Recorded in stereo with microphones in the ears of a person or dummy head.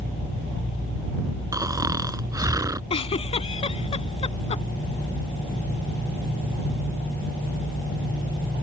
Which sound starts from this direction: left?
A giggle, at 2.9 s.